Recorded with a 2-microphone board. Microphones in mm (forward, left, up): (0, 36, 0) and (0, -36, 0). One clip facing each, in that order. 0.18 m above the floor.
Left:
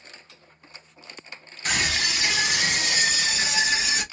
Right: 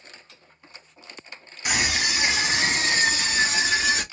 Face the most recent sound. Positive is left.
turn(degrees=-35)  # may be behind; listen again after turning